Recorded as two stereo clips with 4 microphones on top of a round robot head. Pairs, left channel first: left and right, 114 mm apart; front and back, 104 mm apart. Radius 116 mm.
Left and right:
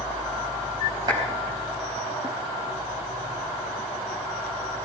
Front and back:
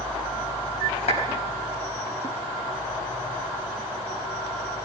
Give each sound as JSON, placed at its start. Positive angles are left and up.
{"t": 1.1, "sound": "a clap", "azimuth_deg": -30, "distance_m": 4.5}